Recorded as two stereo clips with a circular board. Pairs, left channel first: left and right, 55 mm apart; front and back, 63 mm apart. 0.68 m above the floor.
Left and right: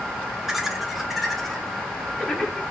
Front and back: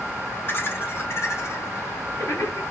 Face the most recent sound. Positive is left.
turn(degrees=10)